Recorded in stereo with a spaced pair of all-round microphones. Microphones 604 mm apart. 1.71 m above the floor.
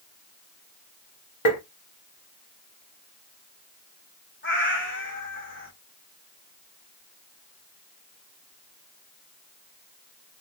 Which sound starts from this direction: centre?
A cat meowing, at 4.4 s.